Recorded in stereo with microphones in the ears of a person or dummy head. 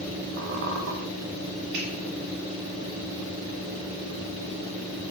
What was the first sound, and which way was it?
A squeak, 50° right (ahead or behind).